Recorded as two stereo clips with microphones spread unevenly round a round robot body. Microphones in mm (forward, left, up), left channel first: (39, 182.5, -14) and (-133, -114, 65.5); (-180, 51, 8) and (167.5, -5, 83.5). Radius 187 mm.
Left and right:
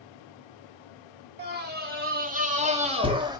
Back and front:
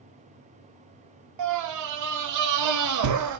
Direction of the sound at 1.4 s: 55° right.